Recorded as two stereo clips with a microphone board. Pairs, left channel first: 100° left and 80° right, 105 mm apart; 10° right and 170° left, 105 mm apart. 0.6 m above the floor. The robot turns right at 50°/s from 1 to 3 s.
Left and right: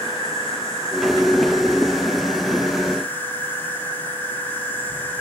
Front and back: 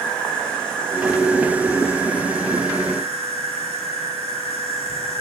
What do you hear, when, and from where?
0.0 s an insect: 70° left, 5.5 m; by 5.2 s 170° left, 5.5 m